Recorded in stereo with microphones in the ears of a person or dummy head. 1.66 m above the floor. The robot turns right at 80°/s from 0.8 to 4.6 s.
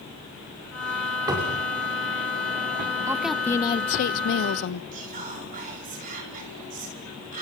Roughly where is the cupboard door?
Behind.